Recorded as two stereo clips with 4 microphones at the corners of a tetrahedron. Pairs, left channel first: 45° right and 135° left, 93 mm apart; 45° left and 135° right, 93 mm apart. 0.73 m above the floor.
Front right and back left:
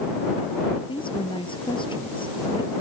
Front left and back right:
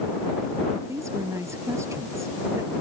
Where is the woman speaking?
75° right.